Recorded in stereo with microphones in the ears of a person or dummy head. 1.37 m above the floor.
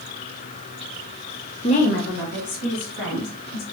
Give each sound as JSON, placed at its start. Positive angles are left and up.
{"t": 1.6, "sound": "a woman speaking", "side_deg": 25, "distance_m": 0.6}